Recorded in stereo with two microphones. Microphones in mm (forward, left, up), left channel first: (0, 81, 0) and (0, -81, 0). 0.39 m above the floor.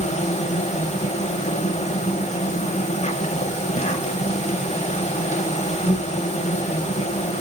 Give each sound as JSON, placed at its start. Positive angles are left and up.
{"t": 0.0, "sound": "an insect", "side_deg": 45, "distance_m": 0.8}